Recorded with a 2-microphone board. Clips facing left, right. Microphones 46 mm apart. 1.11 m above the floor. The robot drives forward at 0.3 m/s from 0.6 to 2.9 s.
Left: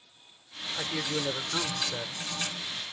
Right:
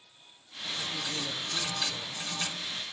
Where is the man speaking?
45° left (ahead or behind); by 2.2 s 40° left (ahead or behind).